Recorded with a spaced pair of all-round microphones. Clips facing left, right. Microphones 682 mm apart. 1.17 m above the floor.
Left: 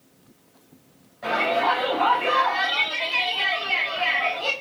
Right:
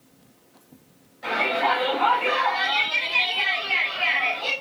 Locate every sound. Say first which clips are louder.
1.2 s a shout: left 2 dB; 70° left (ahead or behind), 6 m